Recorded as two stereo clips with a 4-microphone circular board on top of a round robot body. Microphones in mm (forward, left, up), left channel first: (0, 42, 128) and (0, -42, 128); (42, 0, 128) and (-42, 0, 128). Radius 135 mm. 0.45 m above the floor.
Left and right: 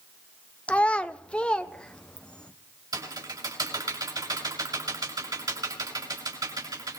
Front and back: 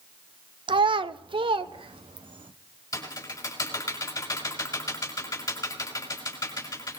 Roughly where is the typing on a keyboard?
Ahead right.